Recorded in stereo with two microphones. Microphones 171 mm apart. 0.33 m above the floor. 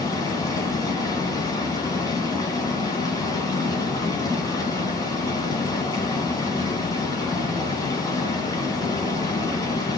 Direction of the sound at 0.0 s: 20° left (ahead or behind).